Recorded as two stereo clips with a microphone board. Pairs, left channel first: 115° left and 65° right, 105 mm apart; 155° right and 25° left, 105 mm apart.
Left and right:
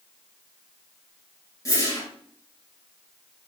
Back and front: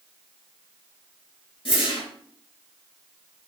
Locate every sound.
1.6 s a whoosh: 170° left, 3 m